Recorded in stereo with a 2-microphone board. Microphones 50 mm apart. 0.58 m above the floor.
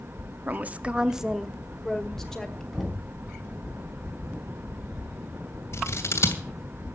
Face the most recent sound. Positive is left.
turn(degrees=60)  # may be behind; listen again after turning